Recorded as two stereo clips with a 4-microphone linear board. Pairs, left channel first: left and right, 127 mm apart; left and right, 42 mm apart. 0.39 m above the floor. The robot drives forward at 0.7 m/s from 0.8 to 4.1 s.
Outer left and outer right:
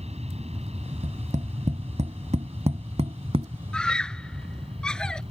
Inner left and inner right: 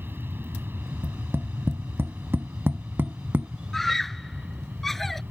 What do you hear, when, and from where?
0.0 s an aircraft: 55° right (ahead or behind); by 5.3 s 50° right (ahead or behind)
1.0 s tapping: 70° right (ahead or behind); by 3.5 s 50° right (ahead or behind)
3.7 s a scream: 5° left (ahead or behind)